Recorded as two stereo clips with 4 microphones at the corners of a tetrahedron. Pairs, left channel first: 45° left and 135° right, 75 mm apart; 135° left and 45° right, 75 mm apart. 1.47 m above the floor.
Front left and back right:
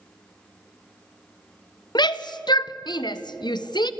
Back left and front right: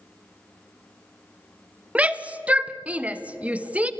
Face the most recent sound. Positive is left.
turn(degrees=25)